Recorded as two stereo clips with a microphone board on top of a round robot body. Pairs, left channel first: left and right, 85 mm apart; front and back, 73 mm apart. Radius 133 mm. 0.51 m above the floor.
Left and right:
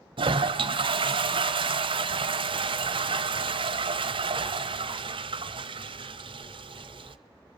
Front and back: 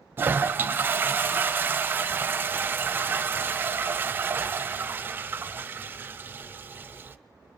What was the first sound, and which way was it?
A toilet flushing, 115° right.